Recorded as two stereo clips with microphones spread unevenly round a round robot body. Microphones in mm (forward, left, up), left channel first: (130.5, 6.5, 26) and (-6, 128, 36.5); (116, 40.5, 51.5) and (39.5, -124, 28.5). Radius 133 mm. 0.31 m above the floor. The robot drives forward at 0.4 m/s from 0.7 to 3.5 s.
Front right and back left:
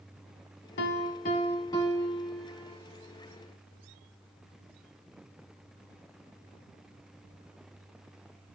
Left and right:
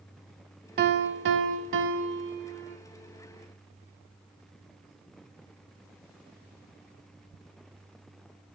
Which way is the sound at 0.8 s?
80° right.